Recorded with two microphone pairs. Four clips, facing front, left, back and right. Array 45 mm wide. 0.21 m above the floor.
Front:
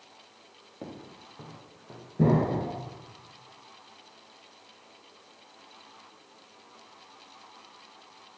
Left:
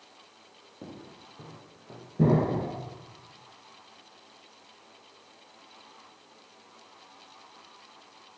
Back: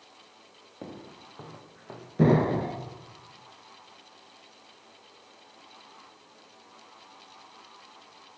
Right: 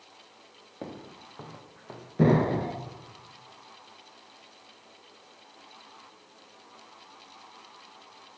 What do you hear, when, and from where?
0.8 s footsteps: 105° right, 2 m; by 2.1 s 135° right, 3 m
2.2 s an explosion: 130° right, 1.7 m